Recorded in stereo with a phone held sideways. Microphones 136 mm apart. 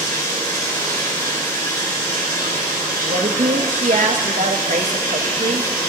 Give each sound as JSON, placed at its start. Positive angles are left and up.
{"t": 0.0, "sound": "running water", "side_deg": 25, "distance_m": 3.5}
{"t": 3.0, "sound": "a woman speaking", "side_deg": -65, "distance_m": 0.8}